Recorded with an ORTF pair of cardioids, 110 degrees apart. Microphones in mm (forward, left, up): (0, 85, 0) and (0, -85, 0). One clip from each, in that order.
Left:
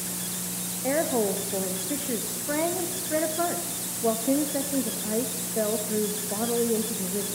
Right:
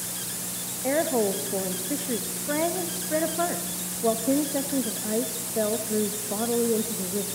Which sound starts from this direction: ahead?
A woman speaking, at 0.8 s.